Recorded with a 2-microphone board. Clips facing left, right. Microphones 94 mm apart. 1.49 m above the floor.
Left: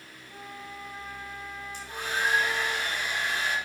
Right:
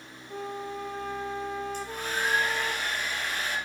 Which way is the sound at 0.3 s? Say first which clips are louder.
Right 8 dB; 60° right (ahead or behind).